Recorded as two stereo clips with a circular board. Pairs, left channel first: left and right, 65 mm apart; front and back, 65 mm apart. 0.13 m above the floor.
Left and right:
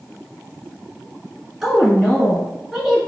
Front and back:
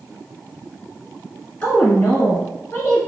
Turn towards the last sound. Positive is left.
turn(degrees=-25)